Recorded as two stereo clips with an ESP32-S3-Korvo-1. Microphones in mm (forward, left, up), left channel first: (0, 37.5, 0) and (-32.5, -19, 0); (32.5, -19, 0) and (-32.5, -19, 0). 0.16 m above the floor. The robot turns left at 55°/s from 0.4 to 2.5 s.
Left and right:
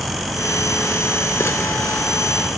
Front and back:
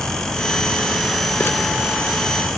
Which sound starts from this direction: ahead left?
Crumpling, at 1.4 s.